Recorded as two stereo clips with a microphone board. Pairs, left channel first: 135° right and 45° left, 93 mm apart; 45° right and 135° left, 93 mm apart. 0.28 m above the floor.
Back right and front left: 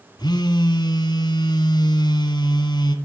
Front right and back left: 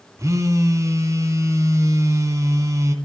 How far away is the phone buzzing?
About 1.5 m.